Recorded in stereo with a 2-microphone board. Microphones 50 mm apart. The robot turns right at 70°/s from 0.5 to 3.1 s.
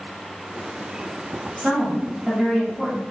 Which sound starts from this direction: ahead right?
A woman speaking, at 1.6 s.